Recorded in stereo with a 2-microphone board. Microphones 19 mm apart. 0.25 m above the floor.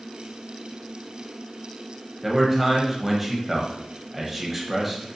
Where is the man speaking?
10° right (ahead or behind), 1.0 m.